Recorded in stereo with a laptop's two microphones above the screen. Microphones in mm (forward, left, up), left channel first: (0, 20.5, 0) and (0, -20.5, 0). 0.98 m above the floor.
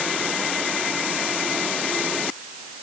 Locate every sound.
Only background noise.